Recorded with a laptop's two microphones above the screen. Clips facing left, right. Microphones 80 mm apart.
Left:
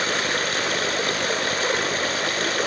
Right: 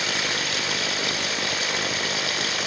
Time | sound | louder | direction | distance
0.0 | running water | left 4 dB | 40° left (ahead or behind) | 1.4 m